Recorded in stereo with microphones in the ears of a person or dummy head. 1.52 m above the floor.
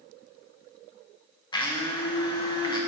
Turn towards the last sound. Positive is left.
turn(degrees=20)  # may be behind; listen again after turning